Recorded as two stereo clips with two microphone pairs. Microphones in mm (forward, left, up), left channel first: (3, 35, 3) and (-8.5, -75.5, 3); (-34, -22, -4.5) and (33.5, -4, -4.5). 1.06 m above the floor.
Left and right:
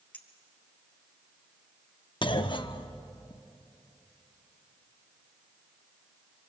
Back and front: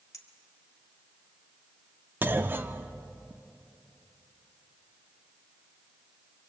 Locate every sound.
0.1 s a clink: 160° left, 1.6 m
2.2 s a clunk: 60° left, 0.7 m